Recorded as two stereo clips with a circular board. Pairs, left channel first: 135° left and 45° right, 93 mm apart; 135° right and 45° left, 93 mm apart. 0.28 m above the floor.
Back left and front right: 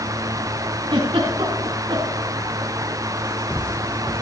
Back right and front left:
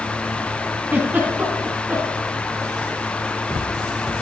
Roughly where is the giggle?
Ahead right.